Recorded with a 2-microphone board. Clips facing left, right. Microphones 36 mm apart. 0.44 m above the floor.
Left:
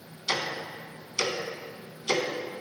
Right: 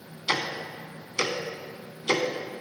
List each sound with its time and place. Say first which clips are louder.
0.3 s ticking: right 2 dB; 25° right (ahead or behind), 0.5 m